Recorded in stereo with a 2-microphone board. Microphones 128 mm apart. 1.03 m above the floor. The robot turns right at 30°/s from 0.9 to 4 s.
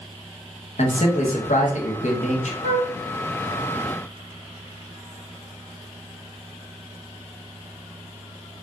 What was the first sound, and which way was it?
A man speaking, 60° left.